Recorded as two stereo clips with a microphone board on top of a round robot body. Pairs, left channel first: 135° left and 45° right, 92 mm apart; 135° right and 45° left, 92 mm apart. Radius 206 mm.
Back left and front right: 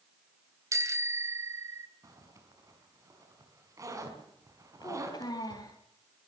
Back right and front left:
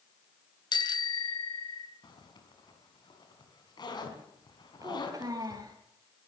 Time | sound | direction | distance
0.7 | a bicycle bell | 100° right | 2.5 m
2.0 | a zipper | 95° right | 5 m
4.8 | a child speaking | 95° left | 3 m